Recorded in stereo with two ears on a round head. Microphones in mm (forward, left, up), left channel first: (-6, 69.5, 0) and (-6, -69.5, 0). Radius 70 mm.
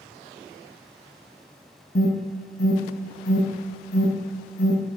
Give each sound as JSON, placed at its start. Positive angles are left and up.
{"t": 1.9, "sound": "an alarm", "side_deg": 65, "distance_m": 2.5}